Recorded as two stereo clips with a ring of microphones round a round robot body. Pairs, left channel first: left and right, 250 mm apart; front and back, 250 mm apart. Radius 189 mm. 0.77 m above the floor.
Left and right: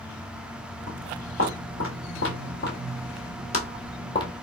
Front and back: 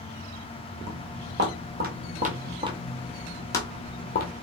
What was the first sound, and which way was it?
Footsteps, 145° left.